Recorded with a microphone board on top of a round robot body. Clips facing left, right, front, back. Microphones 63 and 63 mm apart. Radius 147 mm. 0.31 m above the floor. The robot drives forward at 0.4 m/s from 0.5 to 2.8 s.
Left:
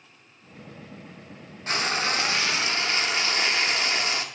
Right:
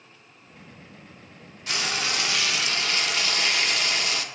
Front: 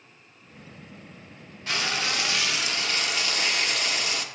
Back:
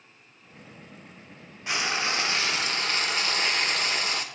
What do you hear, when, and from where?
1.7 s frying: 115° left, 0.9 m; by 4.2 s 145° left, 1.1 m